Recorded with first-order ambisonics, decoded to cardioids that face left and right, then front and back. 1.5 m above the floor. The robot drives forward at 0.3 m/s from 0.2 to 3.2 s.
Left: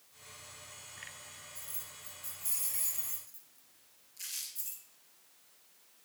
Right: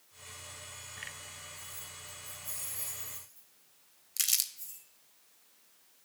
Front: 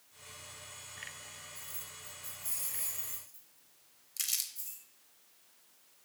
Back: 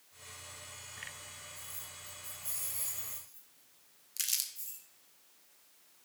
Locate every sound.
1.6 s keys jangling: 85° left, 3.5 m; by 4.8 s 90° left, 3.5 m
4.2 s crumpling: 100° right, 0.6 m